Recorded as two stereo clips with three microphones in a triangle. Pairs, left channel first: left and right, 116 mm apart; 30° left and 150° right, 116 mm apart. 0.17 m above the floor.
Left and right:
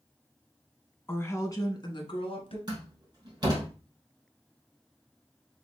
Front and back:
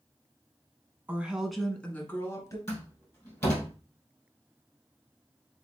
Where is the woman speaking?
145° left, 1.2 m; by 2.6 s 85° left, 1.6 m.